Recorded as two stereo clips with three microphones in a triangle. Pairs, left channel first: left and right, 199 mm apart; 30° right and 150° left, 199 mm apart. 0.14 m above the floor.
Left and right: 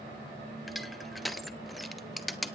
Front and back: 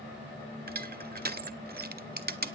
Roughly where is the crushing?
Behind.